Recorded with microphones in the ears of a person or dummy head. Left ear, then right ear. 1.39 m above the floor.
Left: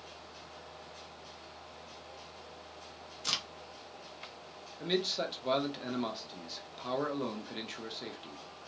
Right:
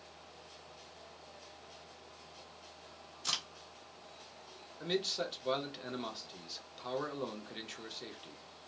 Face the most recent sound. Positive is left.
turn(degrees=5)  # may be behind; listen again after turning